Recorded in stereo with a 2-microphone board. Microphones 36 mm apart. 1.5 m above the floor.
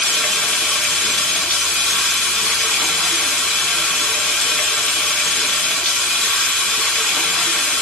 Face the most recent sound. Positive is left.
turn(degrees=20)  # may be behind; listen again after turning